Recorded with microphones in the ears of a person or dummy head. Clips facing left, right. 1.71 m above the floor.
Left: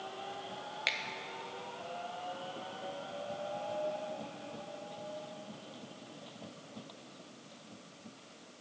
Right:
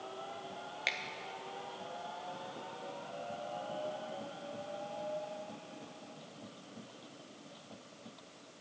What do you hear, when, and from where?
0.9 s a finger snap: centre (ahead or behind), 0.6 m